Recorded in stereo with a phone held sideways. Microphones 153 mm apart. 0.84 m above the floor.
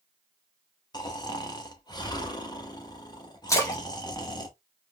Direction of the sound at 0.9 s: 25° left (ahead or behind).